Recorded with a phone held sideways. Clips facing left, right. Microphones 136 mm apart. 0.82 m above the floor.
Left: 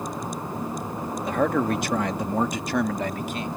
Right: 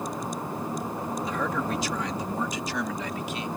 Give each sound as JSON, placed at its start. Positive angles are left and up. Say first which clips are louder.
{"t": 1.2, "sound": "a man speaking", "louder": "left 9 dB", "side_deg": 55}